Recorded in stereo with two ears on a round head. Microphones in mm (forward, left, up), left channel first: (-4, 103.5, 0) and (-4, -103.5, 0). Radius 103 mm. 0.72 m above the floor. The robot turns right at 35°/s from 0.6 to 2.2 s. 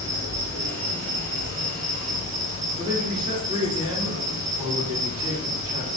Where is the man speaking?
30° right (ahead or behind), 1.8 m.